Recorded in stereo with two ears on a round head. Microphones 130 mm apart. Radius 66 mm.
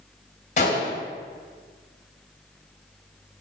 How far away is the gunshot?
About 3 m.